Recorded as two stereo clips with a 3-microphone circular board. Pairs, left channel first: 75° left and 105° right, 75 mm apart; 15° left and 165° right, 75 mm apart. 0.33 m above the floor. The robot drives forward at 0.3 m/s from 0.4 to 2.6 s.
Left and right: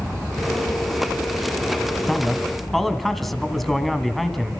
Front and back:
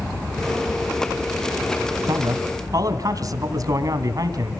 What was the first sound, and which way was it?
A man speaking, 160° left.